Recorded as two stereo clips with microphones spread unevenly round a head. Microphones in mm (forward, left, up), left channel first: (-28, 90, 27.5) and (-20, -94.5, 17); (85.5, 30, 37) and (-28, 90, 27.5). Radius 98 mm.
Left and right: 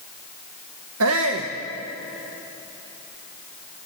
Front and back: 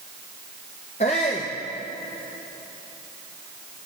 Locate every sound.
1.0 s a shout: 85° right, 1.4 m